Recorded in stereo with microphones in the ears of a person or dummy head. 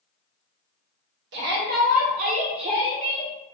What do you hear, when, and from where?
1.3 s a shout: 65° right (ahead or behind), 1.5 m; by 3.3 s 20° right (ahead or behind), 1.7 m